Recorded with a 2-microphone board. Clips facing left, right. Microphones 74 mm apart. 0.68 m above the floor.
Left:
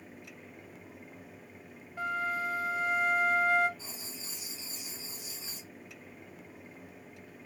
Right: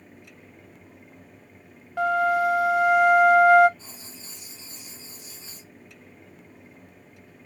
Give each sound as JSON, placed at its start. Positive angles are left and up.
{"t": 2.0, "sound": "a flute", "side_deg": -75, "distance_m": 0.6}
{"t": 3.8, "sound": "writing", "side_deg": 5, "distance_m": 3.0}